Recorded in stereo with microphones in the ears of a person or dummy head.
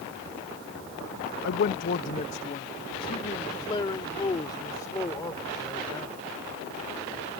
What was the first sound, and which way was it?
A man speaking, 60° left (ahead or behind).